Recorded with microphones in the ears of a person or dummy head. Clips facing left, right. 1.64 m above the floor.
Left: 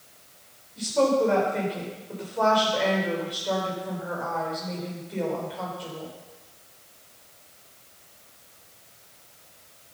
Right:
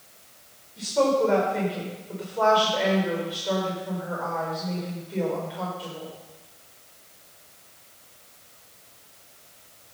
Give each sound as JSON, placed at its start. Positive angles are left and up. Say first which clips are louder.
{"t": 0.8, "sound": "a woman speaking", "louder": "even", "side_deg": -5, "distance_m": 5.5}